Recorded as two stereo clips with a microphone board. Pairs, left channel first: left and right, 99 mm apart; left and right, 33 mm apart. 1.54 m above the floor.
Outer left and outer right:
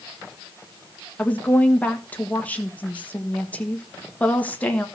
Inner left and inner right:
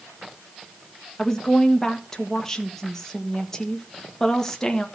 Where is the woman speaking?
15° left (ahead or behind), 1.4 m.